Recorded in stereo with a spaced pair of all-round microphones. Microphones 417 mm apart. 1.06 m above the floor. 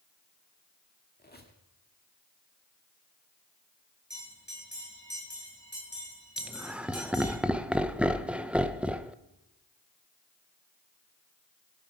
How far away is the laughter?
About 0.6 m.